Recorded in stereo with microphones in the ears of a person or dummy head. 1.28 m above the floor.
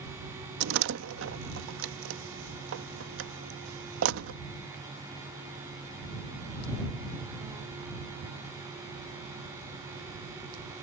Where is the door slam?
75° right (ahead or behind).